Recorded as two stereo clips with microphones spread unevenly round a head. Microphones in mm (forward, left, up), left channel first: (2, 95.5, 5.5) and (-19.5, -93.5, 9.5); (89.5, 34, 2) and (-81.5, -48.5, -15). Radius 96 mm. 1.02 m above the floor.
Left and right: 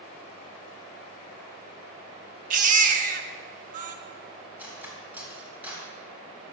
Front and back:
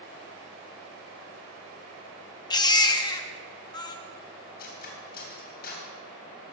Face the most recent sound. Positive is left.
turn(degrees=-15)